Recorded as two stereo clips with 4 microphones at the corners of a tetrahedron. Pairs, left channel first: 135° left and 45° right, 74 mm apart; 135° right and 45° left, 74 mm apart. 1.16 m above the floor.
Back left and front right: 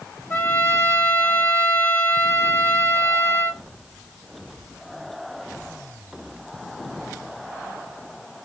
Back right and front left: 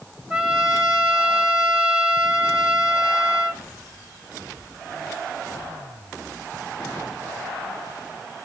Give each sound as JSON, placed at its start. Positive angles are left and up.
{"t": 0.3, "sound": "a trumpet", "azimuth_deg": 115, "distance_m": 0.9}